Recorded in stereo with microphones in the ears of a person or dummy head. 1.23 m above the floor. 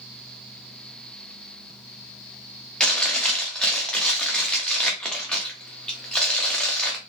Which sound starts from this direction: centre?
Chewing, at 2.8 s.